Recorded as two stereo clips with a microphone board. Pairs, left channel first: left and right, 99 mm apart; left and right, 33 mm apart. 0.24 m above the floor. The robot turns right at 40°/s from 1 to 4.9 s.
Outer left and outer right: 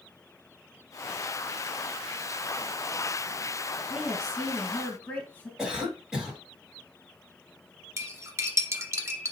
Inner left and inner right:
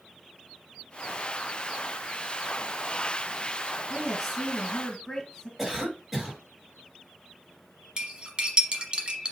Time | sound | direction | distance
3.9 | a woman speaking | 15° right | 2 m
5.6 | a cough | 10° right (ahead or behind) | 1.8 m
8.0 | cutlery clinking | 30° right (ahead or behind) | 1.0 m